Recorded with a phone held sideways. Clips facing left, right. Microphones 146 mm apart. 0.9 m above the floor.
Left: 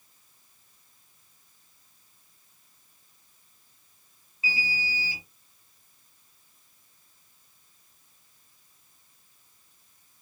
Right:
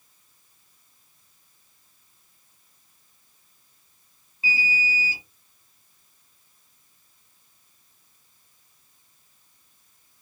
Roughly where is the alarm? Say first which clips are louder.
Right 4 dB; right.